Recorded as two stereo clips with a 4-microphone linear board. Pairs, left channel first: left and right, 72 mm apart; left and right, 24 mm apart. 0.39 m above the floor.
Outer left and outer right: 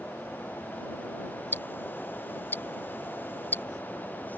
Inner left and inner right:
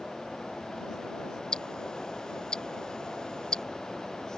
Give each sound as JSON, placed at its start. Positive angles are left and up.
{"t": 1.5, "sound": "ticking", "side_deg": 35}